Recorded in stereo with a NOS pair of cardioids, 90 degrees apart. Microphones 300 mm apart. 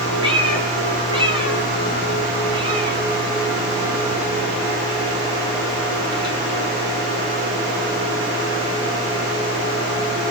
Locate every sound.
0.2 s a cat meowing: 15° right, 3.5 m